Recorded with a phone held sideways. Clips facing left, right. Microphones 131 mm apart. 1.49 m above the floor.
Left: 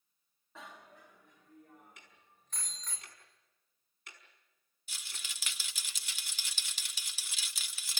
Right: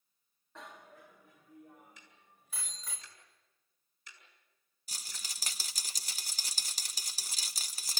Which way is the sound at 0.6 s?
Centre (ahead or behind).